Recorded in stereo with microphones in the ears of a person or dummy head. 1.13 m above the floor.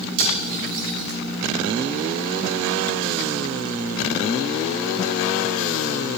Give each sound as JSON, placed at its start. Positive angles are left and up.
{"t": 0.2, "sound": "cutlery clinking", "side_deg": -75, "distance_m": 7.0}